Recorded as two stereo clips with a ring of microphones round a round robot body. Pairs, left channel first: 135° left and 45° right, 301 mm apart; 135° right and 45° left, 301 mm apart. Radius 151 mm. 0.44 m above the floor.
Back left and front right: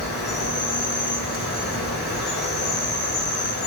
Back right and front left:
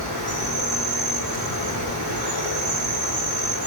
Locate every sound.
0.0 s an insect: 80° left, 2.5 m